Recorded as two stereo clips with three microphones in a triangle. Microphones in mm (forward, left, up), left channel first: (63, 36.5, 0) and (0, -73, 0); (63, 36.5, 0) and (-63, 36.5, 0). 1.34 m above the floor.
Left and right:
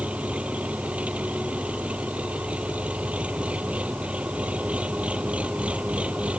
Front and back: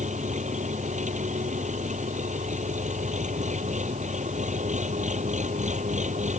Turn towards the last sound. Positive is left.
turn(degrees=160)